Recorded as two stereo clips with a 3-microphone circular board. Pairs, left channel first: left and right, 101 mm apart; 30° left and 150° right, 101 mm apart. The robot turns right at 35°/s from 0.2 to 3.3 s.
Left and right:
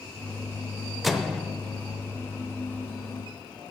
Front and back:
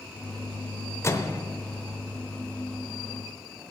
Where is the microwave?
Straight ahead, 0.7 m; by 1.4 s 10° left, 0.7 m.